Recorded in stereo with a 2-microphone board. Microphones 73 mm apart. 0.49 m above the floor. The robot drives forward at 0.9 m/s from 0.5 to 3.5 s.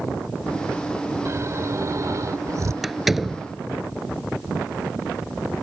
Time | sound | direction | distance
1.2 | snoring | 40° right (ahead or behind) | ?
2.8 | a door slam | 5° right (ahead or behind) | ?